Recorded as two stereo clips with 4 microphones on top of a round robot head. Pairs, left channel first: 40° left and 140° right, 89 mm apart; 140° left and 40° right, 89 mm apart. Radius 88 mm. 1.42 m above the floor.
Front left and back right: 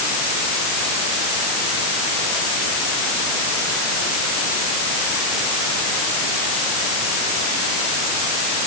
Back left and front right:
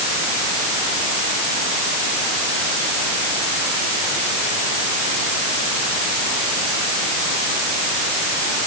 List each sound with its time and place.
Only background noise.